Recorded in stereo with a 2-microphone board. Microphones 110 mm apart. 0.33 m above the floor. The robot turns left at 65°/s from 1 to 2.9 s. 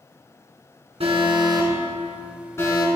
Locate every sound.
1.0 s an alarm: 70° right (ahead or behind), 2.5 m; by 2.9 s 45° left (ahead or behind), 2.5 m